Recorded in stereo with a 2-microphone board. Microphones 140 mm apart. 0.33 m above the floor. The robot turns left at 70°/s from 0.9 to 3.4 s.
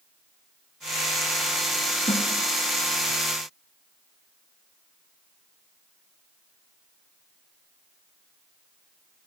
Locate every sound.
2.1 s a snare drum: 45° left (ahead or behind), 3 m; by 2.3 s 55° left (ahead or behind), 3 m